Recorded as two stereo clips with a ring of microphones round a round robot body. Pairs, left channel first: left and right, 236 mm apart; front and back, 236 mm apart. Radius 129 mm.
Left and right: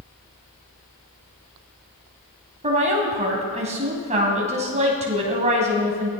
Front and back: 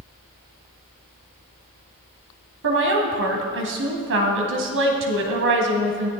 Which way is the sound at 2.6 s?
150° right.